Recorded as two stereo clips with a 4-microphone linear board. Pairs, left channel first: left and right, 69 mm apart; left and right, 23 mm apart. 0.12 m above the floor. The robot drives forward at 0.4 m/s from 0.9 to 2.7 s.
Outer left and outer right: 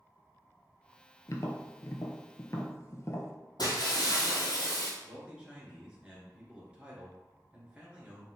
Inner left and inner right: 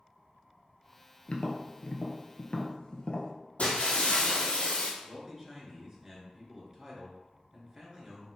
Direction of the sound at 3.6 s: 75° left (ahead or behind).